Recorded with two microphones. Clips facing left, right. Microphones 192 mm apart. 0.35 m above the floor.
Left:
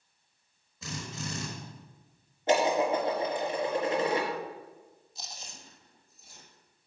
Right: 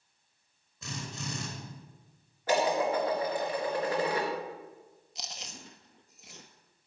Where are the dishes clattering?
25° left (ahead or behind), 3.5 m.